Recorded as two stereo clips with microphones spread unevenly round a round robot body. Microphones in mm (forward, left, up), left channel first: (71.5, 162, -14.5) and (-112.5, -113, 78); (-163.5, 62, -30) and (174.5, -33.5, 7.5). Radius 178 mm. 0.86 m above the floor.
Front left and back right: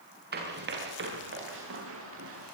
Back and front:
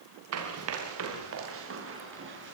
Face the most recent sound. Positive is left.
turn(degrees=-75)